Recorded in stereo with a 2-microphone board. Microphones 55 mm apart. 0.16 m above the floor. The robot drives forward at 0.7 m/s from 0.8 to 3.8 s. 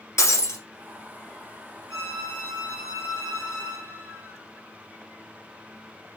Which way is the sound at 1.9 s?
60° left (ahead or behind).